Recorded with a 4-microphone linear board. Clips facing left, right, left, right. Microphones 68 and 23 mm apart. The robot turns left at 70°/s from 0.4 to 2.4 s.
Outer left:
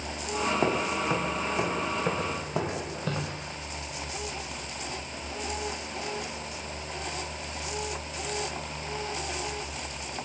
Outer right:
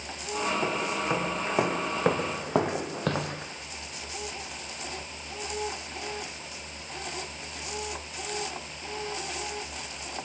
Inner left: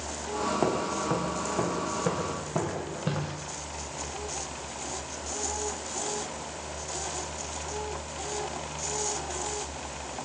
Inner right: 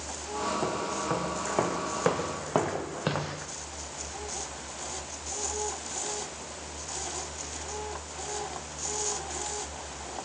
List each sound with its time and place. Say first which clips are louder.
0.6 s footsteps: outer left 2 dB, inner left 3 dB; 30° left (ahead or behind), 5 m; by 3.5 s 65° right (ahead or behind), 4.5 m